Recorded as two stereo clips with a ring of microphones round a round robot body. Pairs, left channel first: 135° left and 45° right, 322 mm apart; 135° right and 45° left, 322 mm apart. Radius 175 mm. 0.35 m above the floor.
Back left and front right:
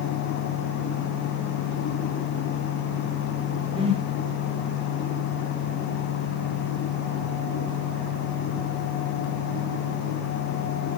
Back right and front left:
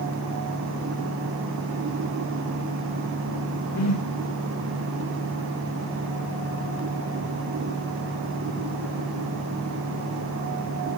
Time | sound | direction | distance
3.8 | a whoosh | 115° right | 1.0 m